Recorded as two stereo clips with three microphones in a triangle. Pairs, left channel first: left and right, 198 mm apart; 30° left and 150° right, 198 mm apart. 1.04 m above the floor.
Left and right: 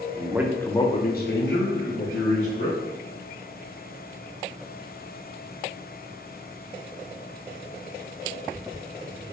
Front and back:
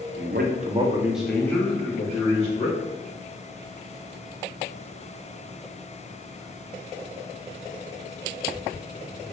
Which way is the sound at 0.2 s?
155° right.